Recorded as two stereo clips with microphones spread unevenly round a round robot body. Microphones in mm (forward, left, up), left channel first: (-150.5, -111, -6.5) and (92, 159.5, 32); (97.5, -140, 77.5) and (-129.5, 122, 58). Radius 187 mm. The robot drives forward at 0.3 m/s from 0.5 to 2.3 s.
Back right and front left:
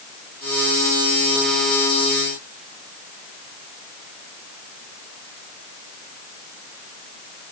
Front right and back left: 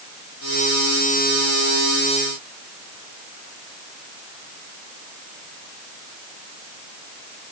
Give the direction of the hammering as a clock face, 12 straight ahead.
No hammering in this recording.